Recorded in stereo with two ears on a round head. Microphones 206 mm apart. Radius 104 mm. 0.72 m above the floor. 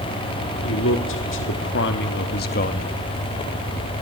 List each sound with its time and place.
0.6 s a man speaking: 60° left (ahead or behind), 2 m; by 2.9 s 30° left (ahead or behind), 0.9 m